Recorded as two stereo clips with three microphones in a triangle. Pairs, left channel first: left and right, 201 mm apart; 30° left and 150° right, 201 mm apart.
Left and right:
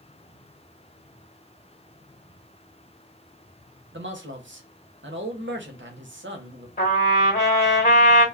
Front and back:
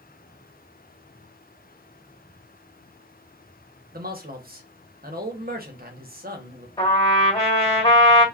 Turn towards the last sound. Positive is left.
turn(degrees=85)